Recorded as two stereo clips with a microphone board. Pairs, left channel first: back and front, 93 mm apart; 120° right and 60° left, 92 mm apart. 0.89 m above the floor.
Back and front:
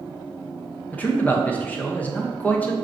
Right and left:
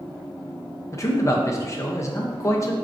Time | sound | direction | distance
0.9 | a man speaking | 125° right | 0.6 m